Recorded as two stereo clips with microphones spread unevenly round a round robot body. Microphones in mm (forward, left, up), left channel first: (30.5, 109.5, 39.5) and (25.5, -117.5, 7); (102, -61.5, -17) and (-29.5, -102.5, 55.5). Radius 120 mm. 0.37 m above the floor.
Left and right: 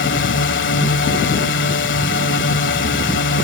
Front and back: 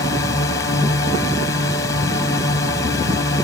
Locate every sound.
0.0 s a drone: 60° left